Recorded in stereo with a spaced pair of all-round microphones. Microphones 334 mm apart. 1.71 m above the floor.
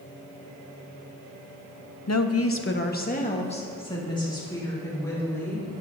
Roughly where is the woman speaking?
Left.